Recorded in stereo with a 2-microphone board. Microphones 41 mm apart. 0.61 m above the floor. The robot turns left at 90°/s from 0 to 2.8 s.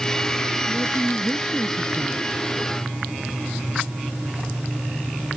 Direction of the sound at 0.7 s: 55° left.